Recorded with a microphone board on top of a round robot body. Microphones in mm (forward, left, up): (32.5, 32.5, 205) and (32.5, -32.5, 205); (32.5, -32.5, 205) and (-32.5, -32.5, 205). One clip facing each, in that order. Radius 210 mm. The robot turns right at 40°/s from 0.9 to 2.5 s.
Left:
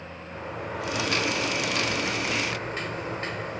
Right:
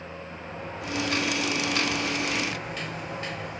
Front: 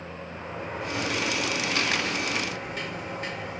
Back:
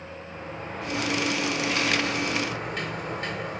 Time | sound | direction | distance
0.3 | a sliding door | 80° left | 4 m